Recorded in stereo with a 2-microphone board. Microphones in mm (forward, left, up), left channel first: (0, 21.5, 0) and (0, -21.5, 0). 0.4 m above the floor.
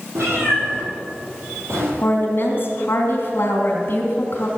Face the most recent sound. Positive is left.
turn(degrees=50)  # may be behind; listen again after turning